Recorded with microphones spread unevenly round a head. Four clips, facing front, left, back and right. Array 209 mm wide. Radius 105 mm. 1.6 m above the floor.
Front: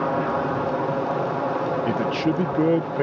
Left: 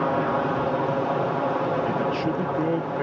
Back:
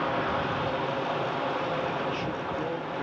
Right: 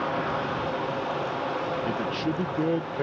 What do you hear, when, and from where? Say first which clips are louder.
0.0 s an aircraft: left 5 dB, front 5 dB; 45° left; by 3.0 s 50° left
1.9 s a man speaking: left 4 dB, front 8 dB; 5° right